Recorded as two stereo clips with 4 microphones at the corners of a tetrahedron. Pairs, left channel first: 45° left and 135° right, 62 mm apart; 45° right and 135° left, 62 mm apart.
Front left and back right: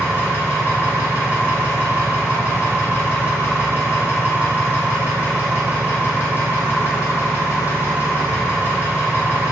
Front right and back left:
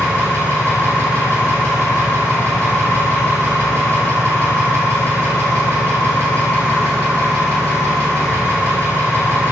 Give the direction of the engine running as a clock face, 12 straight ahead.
3 o'clock.